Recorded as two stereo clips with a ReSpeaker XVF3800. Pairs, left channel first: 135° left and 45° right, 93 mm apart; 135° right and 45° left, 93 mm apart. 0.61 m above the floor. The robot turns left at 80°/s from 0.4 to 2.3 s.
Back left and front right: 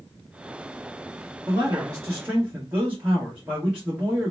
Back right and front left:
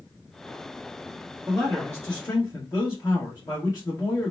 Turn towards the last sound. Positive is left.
turn(degrees=-110)